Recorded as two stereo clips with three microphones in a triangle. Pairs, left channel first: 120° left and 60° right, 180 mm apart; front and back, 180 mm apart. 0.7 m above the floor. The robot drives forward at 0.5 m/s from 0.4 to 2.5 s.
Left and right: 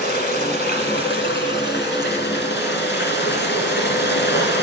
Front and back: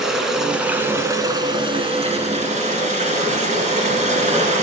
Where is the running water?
95° left, 1.3 m; by 4.6 s 130° left, 1.7 m.